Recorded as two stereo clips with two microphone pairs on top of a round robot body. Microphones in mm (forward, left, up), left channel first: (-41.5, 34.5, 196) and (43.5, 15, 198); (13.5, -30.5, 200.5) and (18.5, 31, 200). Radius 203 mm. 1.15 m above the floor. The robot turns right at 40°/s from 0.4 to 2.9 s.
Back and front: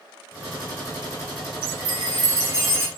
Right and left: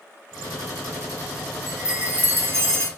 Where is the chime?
5° left, 3.5 m; by 2.9 s 55° left, 3.5 m.